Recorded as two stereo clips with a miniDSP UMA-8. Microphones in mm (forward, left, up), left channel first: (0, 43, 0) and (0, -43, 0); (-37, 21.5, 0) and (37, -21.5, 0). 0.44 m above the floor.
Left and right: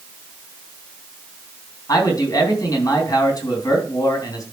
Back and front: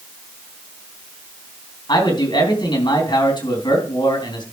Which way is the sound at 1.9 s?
130° left.